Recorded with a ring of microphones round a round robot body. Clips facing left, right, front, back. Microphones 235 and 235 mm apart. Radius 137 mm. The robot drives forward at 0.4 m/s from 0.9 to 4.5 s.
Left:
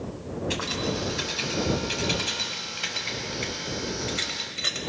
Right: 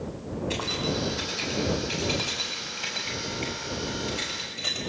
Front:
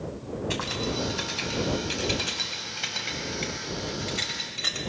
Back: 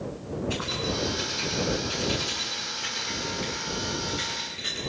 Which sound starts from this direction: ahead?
Keys jangling, at 0.5 s.